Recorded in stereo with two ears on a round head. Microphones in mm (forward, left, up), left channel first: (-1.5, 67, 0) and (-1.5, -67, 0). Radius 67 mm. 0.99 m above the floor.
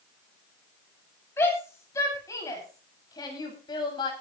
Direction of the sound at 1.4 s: 15° left (ahead or behind).